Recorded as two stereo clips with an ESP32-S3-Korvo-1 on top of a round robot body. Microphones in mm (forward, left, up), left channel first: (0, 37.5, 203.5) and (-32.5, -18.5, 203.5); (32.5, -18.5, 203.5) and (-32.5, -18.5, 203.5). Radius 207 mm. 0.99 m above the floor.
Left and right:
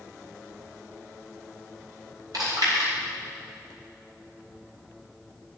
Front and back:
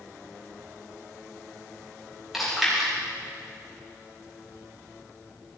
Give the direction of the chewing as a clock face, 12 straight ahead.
3 o'clock.